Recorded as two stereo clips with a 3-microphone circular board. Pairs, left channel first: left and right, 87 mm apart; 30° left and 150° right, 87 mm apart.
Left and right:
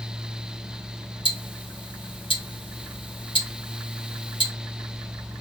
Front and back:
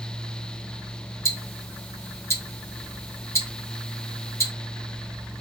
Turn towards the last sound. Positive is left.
turn(degrees=85)